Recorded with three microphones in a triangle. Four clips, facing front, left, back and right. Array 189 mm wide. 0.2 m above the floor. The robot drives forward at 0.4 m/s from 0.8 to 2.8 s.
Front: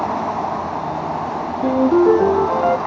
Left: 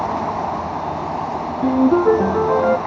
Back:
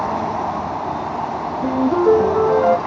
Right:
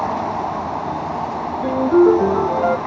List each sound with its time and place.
1.6 s a ringtone: 85° left, 1.8 m; by 2.8 s 100° left, 1.8 m